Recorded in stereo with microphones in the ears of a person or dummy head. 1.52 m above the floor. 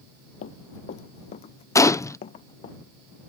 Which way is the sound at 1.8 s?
25° left (ahead or behind).